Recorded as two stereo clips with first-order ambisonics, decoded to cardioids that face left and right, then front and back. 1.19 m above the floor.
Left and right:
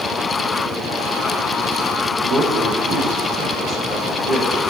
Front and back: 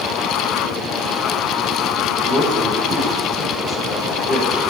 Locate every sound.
2.2 s a man speaking: 60° right, 3 m